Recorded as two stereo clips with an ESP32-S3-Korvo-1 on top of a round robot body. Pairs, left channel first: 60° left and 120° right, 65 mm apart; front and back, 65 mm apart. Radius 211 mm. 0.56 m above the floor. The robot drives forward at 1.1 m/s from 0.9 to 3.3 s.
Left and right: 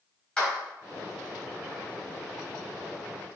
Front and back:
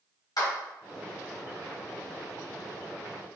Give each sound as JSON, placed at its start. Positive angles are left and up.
{"t": 0.4, "sound": "a clap", "azimuth_deg": -20, "distance_m": 4.0}